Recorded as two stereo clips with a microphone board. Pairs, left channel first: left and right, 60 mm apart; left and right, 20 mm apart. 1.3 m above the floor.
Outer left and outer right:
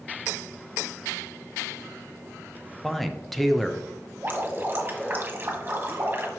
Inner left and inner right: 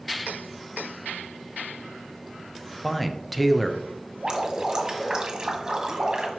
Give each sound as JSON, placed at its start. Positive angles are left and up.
{"t": 2.8, "sound": "a man speaking", "side_deg": 5, "distance_m": 0.8}
{"t": 4.2, "sound": "dripping", "side_deg": -35, "distance_m": 1.6}